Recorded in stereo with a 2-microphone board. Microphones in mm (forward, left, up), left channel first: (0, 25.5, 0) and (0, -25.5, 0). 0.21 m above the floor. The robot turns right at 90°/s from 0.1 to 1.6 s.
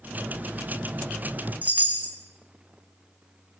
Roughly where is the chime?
Right.